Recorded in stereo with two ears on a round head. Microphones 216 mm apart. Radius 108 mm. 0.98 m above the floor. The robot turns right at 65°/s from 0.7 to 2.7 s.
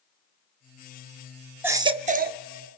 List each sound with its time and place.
1.6 s a baby crying: 170° right, 0.7 m; by 2.4 s 120° right, 0.7 m